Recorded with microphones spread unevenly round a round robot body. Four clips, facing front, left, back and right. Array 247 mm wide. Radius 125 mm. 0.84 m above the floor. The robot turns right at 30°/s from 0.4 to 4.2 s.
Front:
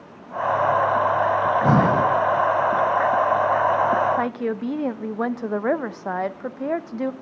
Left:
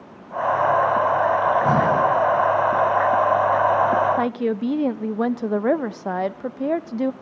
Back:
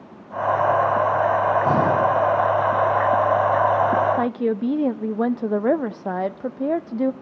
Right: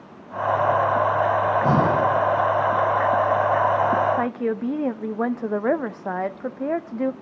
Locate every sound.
1.4 s breathing: 20° right, 3 m; by 2.1 s straight ahead, 3 m
4.2 s a woman speaking: 140° left, 0.7 m; by 7.1 s 145° left, 0.7 m